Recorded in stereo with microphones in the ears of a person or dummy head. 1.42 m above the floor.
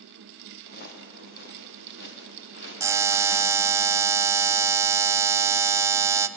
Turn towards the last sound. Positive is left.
turn(degrees=-20)  # may be behind; listen again after turning